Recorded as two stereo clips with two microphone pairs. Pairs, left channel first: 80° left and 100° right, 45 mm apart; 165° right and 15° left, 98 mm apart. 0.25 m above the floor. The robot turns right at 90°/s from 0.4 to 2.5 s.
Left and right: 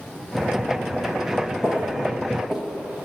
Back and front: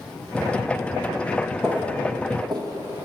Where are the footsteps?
65° right, 0.9 m; by 3.0 s 55° right, 0.6 m.